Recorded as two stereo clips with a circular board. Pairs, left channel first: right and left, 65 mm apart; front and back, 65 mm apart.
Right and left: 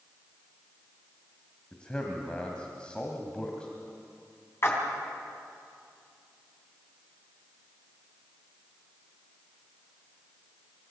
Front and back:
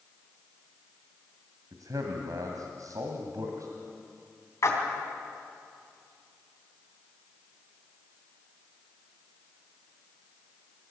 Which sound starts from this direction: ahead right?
A splash, at 4.6 s.